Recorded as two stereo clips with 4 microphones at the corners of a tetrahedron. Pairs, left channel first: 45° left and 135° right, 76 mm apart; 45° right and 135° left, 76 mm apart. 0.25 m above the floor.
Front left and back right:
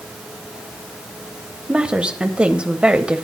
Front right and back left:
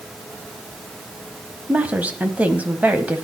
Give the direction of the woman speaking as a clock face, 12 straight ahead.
6 o'clock.